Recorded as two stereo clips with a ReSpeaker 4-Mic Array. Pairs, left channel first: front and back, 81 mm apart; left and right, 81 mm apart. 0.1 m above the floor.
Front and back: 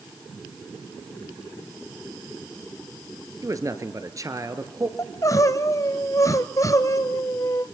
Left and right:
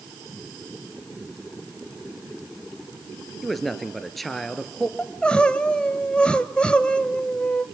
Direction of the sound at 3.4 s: Straight behind.